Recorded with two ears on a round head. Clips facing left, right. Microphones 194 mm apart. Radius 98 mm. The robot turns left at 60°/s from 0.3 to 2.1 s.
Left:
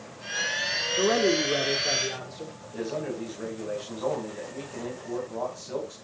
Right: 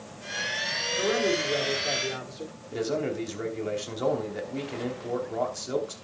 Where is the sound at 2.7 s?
80° right, 3 m.